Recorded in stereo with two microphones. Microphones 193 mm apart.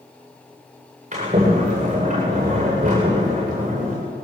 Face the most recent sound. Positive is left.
turn(degrees=-35)  # may be behind; listen again after turning